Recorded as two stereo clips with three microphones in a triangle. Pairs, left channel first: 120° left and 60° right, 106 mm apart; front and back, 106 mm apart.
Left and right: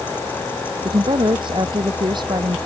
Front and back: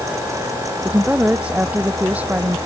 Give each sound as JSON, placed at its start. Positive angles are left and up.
{"t": 0.8, "sound": "a woman speaking", "azimuth_deg": -100}